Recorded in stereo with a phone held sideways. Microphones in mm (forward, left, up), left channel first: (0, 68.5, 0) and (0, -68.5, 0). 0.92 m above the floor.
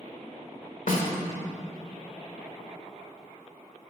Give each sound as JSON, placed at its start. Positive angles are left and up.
{"t": 0.9, "sound": "a snare drum", "side_deg": 80, "distance_m": 1.6}